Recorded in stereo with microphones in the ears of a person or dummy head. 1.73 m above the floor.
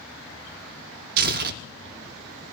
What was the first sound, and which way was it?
Tearing paper, 55° right (ahead or behind).